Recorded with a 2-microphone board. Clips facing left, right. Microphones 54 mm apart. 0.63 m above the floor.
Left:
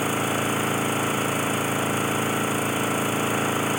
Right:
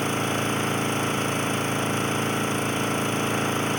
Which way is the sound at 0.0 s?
5° left (ahead or behind).